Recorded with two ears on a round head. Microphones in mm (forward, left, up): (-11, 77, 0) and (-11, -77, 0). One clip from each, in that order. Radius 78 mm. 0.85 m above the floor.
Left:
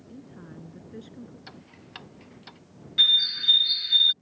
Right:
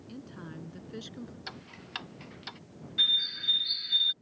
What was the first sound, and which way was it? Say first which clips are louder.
A woman speaking: right 1 dB; 75° right (ahead or behind).